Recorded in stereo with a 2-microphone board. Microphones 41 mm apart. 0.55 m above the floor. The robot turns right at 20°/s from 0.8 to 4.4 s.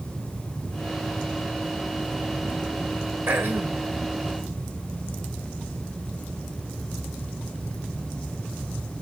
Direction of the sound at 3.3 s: 65° right (ahead or behind).